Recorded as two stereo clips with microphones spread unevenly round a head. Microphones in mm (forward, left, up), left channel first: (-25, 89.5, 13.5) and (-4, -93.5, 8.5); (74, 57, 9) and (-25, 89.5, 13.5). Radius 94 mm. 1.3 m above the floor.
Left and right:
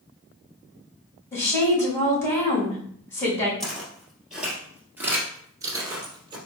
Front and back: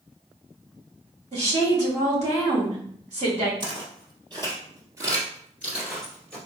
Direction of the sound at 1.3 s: 175° left.